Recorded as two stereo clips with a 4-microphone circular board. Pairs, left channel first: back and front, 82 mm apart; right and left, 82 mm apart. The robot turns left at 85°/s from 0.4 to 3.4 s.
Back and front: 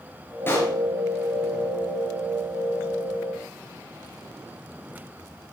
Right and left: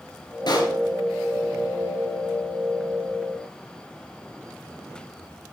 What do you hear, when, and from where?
0.5 s a pop: 115° right, 3.5 m; by 0.7 s 140° right, 3.5 m